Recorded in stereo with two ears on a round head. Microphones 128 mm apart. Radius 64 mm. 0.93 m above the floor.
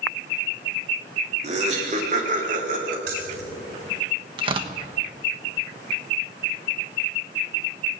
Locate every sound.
1.4 s laughter: 45° right (ahead or behind), 3 m; by 3.0 s 60° right (ahead or behind), 4 m
3.1 s keys jangling: 85° right, 4 m
4.4 s tearing paper: 35° right (ahead or behind), 1.0 m